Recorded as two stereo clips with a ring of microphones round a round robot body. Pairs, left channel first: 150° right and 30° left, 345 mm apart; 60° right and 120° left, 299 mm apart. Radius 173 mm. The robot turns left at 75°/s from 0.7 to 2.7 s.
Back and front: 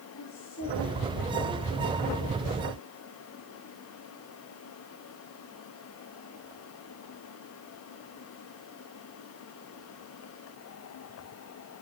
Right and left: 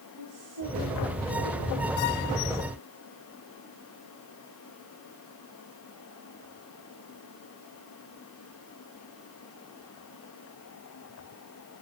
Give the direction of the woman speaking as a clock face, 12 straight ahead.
7 o'clock.